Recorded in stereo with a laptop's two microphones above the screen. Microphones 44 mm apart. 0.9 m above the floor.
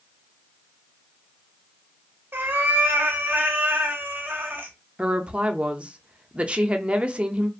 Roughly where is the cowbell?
I don't hear a cowbell.